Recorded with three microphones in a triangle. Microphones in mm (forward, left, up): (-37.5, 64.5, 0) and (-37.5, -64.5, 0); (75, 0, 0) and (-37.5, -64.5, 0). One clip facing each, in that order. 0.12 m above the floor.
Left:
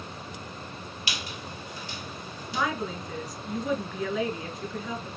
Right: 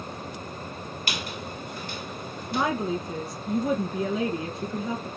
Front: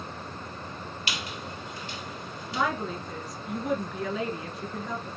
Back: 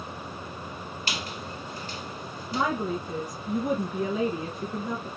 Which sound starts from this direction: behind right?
A woman speaking, at 2.5 s.